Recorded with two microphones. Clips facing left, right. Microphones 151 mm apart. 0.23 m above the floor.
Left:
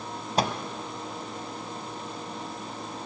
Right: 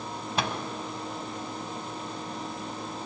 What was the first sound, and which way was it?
A microwave, 35° left (ahead or behind).